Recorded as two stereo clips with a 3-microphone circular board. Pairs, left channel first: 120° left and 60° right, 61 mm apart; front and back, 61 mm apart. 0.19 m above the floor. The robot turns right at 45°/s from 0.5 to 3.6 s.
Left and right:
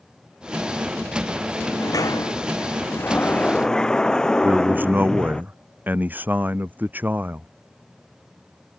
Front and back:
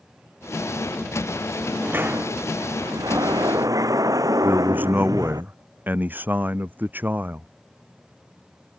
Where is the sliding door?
105° left; by 5.4 s 160° right.